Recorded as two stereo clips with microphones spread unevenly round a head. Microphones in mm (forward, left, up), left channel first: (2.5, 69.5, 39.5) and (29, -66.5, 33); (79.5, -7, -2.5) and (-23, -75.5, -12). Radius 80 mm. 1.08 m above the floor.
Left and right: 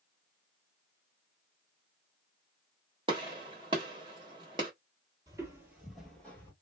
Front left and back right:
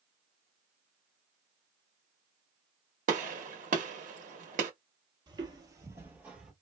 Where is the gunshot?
140° right, 1.0 m.